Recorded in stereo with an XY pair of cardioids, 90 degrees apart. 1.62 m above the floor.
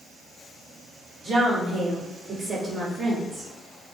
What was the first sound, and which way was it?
A woman speaking, 65° right.